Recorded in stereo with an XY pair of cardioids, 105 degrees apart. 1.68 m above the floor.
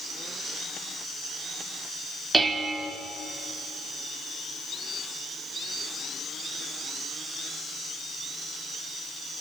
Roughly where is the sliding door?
I don't hear a sliding door.